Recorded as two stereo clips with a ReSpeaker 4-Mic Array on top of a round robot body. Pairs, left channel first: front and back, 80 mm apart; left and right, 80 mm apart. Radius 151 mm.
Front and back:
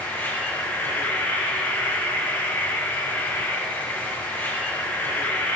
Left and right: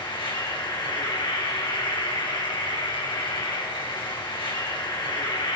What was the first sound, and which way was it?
An insect, 65° left.